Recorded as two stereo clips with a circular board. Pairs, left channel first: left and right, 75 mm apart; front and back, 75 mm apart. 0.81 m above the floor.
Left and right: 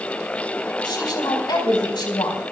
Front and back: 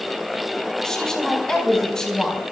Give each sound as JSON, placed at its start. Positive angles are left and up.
{"t": 0.8, "sound": "a woman speaking", "azimuth_deg": 85, "distance_m": 5.0}